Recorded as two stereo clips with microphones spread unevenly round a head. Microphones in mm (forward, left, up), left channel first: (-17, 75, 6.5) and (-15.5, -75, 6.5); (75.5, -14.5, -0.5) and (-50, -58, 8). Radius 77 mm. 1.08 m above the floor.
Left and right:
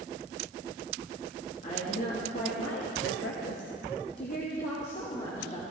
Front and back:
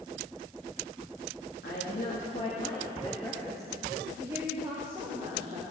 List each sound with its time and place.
1.6 s a woman speaking: 40° left, 2.0 m; by 5.6 s 140° left, 3.5 m